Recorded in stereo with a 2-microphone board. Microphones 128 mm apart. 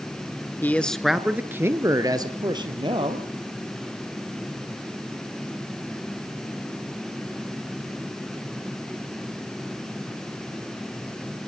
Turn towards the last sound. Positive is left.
turn(degrees=-40)  # may be behind; listen again after turning